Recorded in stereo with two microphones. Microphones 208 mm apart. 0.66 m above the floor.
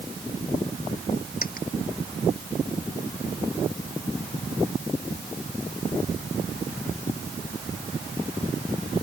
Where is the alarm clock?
No alarm clock in this recording.